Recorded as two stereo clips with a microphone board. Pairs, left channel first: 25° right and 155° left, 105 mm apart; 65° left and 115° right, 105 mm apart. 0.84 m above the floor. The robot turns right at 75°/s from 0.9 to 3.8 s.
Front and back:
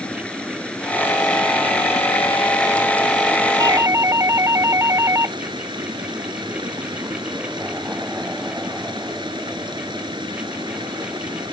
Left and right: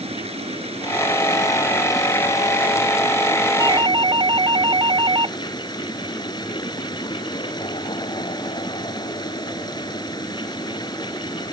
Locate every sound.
0.0 s running water: 100° right; by 11.5 s 115° left
3.6 s a doorbell: 160° right; by 5.4 s 145° right